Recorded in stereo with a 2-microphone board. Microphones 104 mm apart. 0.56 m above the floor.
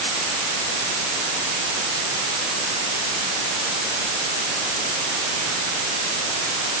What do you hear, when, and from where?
Only background noise.